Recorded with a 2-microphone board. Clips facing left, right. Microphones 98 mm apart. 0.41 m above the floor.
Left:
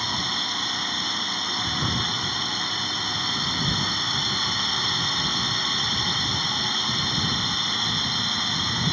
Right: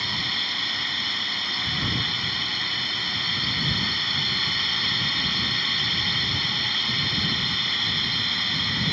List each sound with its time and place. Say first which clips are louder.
0.0 s a drone: left 3 dB; 25° left (ahead or behind)